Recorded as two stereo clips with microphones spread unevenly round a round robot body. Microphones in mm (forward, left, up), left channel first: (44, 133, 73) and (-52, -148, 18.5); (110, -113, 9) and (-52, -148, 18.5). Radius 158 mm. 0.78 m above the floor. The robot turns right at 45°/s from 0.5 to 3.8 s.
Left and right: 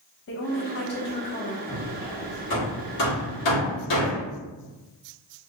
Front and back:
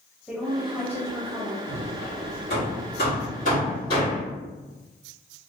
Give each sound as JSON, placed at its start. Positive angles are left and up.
{"t": 0.3, "sound": "a woman speaking", "azimuth_deg": 100, "distance_m": 0.8}
{"t": 1.7, "sound": "hammering", "azimuth_deg": -15, "distance_m": 1.6}